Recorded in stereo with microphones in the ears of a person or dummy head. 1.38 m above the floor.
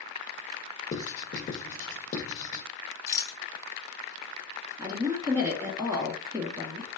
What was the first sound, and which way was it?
Writing, 35° left (ahead or behind).